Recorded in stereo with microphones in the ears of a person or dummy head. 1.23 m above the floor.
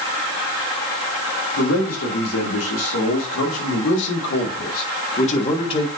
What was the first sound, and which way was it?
A man speaking, 80° left.